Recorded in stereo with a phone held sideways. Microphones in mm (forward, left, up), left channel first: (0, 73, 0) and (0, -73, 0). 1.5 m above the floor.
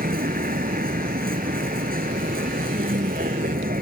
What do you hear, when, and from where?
0.0 s a vehicle: 75° right (ahead or behind)